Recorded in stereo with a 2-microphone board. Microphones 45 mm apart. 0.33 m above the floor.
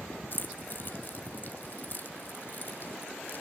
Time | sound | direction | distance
0.3 | keys jangling | 45° left (ahead or behind) | 1.3 m